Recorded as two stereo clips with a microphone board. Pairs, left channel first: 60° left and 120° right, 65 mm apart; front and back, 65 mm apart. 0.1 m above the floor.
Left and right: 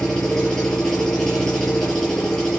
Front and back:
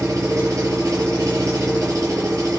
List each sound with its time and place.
0.0 s an engine running: 140° left, 5.5 m